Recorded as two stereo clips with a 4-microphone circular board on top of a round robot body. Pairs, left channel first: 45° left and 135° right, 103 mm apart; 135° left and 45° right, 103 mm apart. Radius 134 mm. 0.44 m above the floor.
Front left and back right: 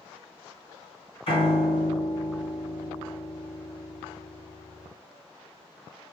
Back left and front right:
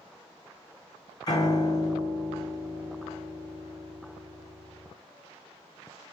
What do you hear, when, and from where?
1.3 s a piano: 80° left, 3 m